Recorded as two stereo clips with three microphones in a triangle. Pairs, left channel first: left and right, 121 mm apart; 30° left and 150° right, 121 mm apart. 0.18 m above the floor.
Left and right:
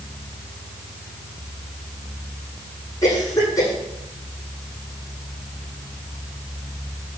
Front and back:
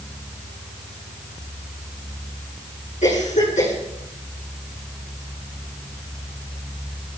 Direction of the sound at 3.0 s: 30° left.